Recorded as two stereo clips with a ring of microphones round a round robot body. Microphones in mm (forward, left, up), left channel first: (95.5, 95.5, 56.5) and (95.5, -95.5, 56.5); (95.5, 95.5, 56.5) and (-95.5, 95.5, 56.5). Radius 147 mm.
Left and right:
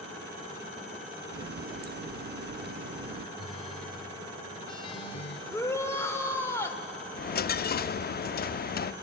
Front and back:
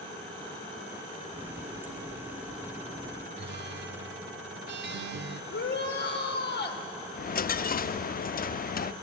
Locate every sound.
1.3 s a running tap: 105° right, 0.7 m
3.4 s a guitar: 155° left, 1.0 m
5.5 s a shout: 15° left, 2.5 m
7.1 s a dropped coin: 45° left, 0.5 m